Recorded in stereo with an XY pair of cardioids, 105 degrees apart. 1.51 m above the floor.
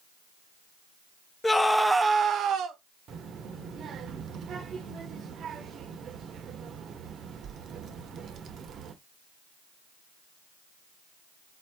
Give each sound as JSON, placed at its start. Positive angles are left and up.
{"t": 1.4, "sound": "a scream", "azimuth_deg": 25, "distance_m": 0.9}
{"t": 3.1, "sound": "a child speaking", "azimuth_deg": -60, "distance_m": 0.9}